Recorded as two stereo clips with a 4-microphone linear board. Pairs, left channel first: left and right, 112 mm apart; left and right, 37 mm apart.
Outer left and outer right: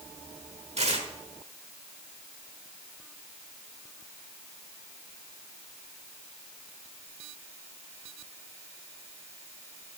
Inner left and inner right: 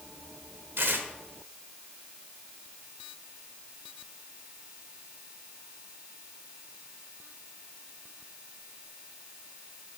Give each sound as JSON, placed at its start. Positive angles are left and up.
{"t": 0.8, "sound": "tearing paper", "side_deg": -70, "distance_m": 1.2}